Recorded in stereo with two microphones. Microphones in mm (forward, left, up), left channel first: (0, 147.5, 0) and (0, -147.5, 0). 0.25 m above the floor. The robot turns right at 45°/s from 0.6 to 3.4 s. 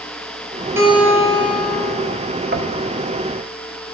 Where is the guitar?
170° right, 3 m; by 1.9 s 120° right, 3 m.